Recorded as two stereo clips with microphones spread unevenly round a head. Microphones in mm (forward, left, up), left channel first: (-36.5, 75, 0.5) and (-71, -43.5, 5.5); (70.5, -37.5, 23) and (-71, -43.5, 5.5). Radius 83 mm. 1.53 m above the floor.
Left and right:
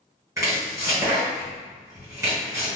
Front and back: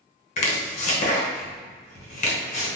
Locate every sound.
0.4 s chopping: 35° right, 0.9 m